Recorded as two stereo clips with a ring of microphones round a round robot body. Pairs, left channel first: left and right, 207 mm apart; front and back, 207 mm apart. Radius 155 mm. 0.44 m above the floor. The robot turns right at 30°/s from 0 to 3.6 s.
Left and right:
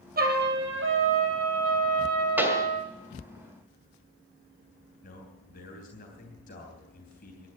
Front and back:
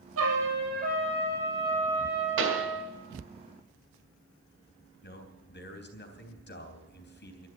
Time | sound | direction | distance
0.2 | a trumpet | 135° right | 2.5 m
2.4 | a pop | 170° right | 2.5 m
5.0 | a man speaking | 30° left | 3.5 m